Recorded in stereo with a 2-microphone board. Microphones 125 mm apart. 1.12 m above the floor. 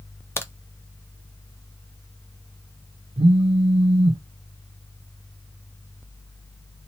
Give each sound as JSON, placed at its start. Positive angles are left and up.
{"t": 0.4, "sound": "a crack", "side_deg": 20, "distance_m": 0.5}
{"t": 3.2, "sound": "a phone buzzing", "side_deg": -55, "distance_m": 0.5}